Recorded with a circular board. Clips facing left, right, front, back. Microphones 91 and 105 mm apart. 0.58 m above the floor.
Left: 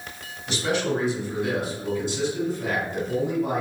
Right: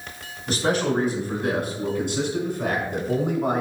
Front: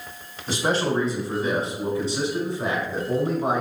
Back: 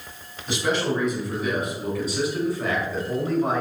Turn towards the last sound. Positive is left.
turn(degrees=-70)